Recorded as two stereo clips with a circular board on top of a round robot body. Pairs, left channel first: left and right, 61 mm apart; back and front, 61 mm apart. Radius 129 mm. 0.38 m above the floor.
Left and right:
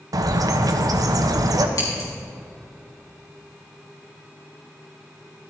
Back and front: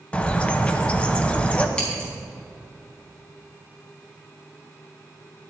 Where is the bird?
110° right, 0.8 m.